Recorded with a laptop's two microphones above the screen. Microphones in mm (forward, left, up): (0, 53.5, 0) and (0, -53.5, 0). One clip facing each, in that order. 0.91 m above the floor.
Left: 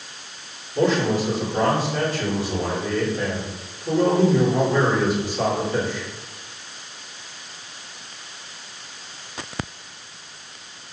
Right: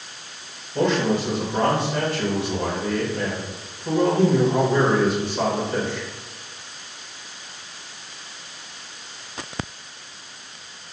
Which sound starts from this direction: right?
A man speaking, at 0.8 s.